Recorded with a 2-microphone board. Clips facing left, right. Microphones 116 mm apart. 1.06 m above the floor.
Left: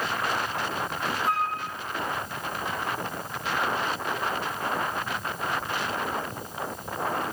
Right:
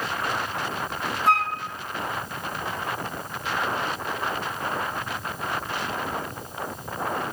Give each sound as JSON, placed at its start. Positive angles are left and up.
{"t": 1.3, "sound": "a flute", "side_deg": -85, "distance_m": 1.0}